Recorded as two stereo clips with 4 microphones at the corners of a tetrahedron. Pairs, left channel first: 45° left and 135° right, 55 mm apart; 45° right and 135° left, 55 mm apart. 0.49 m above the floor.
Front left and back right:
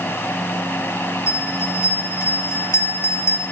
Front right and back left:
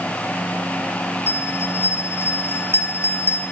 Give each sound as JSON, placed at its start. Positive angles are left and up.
{"t": 1.3, "sound": "a bell", "azimuth_deg": 0, "distance_m": 4.0}